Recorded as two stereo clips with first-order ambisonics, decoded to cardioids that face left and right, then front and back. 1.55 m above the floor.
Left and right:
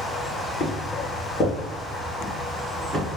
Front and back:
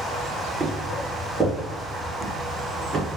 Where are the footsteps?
100° left, 1.7 m; by 3.2 s 140° right, 1.6 m.